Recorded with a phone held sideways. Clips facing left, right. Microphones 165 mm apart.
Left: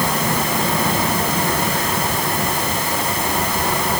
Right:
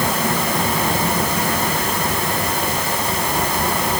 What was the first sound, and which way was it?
Only background noise.